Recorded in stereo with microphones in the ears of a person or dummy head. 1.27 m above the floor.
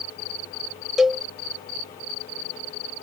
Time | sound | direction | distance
1.0 | a cowbell | centre (ahead or behind) | ?